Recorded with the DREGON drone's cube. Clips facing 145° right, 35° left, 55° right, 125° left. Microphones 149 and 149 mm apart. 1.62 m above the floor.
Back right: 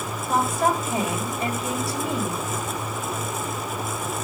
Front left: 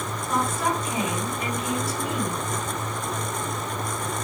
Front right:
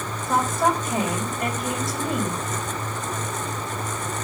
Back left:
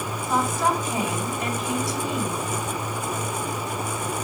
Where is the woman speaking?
95° right, 4 m.